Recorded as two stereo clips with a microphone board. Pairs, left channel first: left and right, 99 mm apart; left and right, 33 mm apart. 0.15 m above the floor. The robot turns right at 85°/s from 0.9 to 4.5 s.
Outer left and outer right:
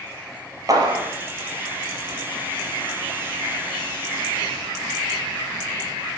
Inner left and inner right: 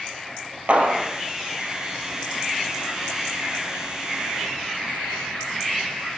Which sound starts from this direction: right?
A clap, at 0.7 s.